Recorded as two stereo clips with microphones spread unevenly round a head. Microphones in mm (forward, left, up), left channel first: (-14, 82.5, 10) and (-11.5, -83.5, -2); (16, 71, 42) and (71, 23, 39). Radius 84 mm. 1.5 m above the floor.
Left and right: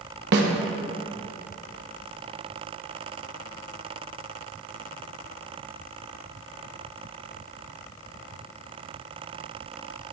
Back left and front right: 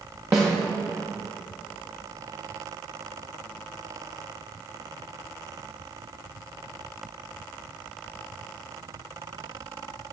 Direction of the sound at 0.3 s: 110° right.